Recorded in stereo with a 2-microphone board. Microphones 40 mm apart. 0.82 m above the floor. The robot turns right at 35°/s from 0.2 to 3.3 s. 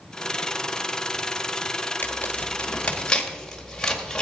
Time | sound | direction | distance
2.0 | tearing paper | 55° left (ahead or behind) | 1.8 m